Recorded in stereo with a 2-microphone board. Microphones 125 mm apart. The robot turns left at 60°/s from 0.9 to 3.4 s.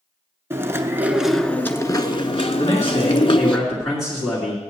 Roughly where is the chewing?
Behind right.